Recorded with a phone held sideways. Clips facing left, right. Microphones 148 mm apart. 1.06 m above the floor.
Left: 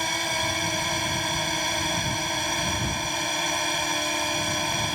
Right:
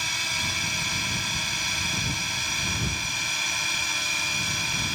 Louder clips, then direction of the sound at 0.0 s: Left 8 dB; 60° left (ahead or behind).